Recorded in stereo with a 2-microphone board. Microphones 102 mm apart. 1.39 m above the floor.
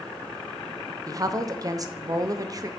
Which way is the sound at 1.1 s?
35° right (ahead or behind).